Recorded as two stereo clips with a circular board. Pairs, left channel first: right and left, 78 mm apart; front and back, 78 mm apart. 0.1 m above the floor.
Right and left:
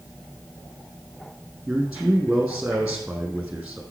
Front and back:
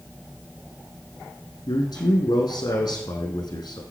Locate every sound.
1.7 s a man speaking: 15° left, 4.5 m